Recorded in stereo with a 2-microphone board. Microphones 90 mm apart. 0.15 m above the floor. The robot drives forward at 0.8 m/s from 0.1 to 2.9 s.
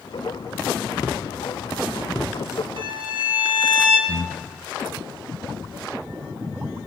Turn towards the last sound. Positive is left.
turn(degrees=50)  # may be behind; listen again after turning